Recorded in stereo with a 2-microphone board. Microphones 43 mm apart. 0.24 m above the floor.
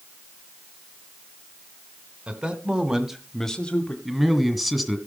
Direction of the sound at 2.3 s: 30° right (ahead or behind).